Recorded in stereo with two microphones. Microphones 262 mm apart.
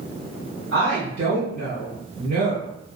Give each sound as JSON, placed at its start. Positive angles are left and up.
{"t": 0.7, "sound": "a woman speaking", "side_deg": -50, "distance_m": 2.0}